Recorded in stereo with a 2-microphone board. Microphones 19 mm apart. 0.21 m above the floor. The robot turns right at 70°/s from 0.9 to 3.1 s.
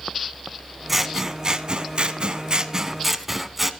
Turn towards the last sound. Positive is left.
turn(degrees=-15)